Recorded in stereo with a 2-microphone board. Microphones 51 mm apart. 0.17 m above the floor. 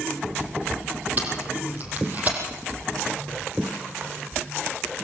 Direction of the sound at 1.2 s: 35° right (ahead or behind).